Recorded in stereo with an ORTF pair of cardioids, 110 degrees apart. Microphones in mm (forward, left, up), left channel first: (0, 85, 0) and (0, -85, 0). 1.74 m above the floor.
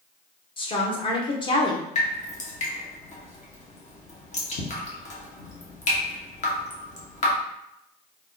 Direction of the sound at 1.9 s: 45° left.